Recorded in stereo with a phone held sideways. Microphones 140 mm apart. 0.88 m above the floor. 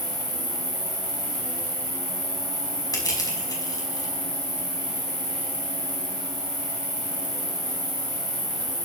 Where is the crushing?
25° left (ahead or behind), 5 m.